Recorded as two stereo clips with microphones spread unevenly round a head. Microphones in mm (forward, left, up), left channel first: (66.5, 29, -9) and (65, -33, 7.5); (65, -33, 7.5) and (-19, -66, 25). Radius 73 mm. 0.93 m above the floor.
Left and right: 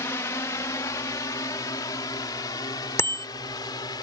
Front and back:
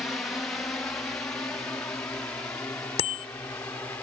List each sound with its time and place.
0.0 s a drone: 100° left
3.0 s a bicycle bell: 35° left